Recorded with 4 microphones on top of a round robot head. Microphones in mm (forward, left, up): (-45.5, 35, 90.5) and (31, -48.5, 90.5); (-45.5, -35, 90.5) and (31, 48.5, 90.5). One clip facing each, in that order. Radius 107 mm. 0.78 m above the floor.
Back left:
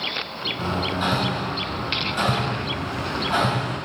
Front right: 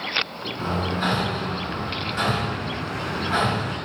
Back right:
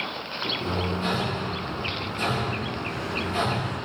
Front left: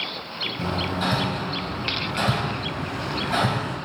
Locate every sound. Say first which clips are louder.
0.6 s hammering: even, front left 3 dB; 55° left, 3 m